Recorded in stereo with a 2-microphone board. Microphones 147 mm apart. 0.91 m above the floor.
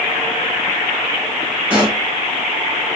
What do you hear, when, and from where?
1.7 s a pop: 10° right (ahead or behind), 3 m